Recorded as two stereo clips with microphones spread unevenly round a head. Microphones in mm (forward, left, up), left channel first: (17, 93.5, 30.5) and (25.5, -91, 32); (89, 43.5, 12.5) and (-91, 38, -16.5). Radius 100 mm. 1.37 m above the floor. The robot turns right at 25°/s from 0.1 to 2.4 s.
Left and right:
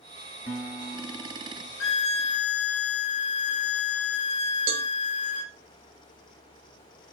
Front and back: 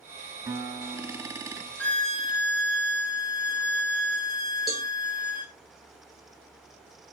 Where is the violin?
80° left, 0.7 m; by 5.5 s 95° left, 0.7 m.